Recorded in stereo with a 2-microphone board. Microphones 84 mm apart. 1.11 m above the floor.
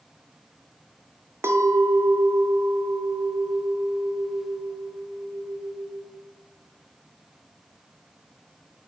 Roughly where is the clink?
Right.